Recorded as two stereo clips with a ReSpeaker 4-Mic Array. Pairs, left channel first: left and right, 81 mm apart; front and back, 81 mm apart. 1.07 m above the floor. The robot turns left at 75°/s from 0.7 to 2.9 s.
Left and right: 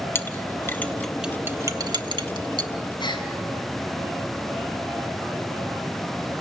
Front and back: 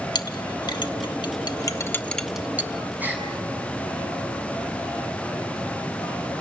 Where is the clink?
30° left, 1.2 m; by 2.7 s 120° right, 1.2 m.